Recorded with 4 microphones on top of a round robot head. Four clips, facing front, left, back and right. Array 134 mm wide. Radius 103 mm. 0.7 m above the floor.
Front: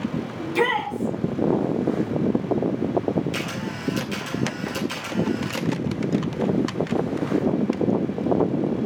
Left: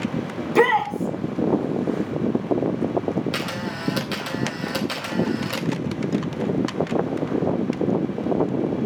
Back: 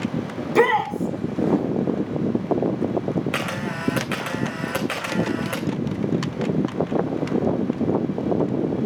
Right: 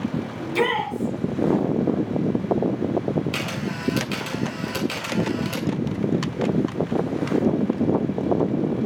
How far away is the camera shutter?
About 4 m.